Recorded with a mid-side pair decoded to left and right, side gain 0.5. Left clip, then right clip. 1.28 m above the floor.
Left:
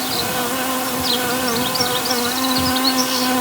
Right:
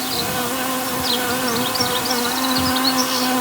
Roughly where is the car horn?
I don't hear a car horn.